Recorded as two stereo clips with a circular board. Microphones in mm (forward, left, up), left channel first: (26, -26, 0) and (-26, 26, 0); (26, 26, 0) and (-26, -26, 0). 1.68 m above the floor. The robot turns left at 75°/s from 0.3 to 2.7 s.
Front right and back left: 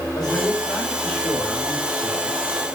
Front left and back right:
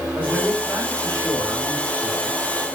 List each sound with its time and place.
0.1 s a man speaking: 65° right, 5.5 m; by 2.4 s 140° left, 5.5 m